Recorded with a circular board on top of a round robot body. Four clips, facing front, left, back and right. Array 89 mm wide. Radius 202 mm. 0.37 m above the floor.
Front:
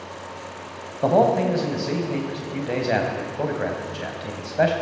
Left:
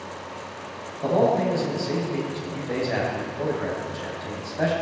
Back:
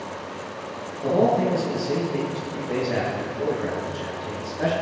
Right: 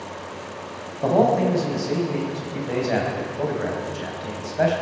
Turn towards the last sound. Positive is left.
turn(degrees=-15)